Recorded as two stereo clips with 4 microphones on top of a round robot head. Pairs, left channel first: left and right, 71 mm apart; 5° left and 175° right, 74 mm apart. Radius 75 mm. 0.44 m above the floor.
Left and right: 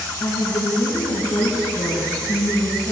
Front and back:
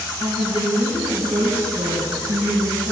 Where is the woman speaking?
150° left, 5 m.